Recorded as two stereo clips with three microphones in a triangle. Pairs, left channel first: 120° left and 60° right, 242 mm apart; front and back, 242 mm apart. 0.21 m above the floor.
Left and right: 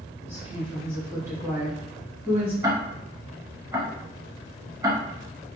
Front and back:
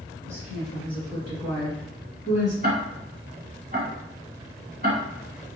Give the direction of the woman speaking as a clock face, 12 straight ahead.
4 o'clock.